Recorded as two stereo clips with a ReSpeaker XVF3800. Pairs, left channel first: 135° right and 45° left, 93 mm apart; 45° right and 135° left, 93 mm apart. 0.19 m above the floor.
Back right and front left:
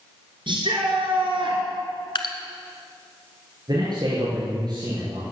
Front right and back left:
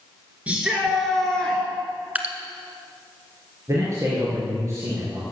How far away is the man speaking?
About 4 m.